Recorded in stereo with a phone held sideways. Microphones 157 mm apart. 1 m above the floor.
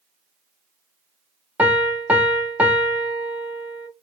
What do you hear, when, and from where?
1.6 s a piano: 10° right (ahead or behind), 0.7 m